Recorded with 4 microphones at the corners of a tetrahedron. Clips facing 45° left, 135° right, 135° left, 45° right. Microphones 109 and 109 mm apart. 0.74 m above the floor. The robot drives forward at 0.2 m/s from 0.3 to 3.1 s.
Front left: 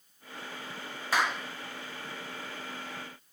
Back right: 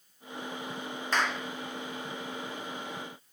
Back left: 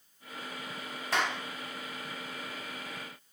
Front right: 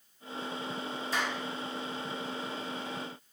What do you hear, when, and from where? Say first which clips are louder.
1.1 s a clap: front left 1 dB, back left 3 dB; 125° left, 1.1 m; by 1.4 s 130° left, 1.1 m